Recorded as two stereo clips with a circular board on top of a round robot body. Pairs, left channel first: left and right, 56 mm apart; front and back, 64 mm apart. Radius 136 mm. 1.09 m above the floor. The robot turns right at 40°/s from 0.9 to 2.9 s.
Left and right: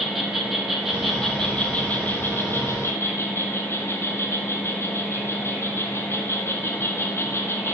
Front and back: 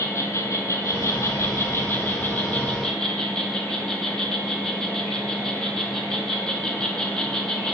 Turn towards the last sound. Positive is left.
turn(degrees=75)